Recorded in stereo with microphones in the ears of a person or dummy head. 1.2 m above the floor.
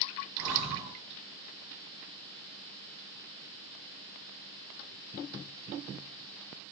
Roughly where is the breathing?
Right.